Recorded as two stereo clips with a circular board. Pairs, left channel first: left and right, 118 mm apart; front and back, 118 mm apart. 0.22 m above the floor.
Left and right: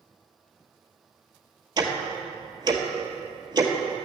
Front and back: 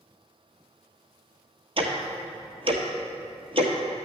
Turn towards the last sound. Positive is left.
turn(degrees=-140)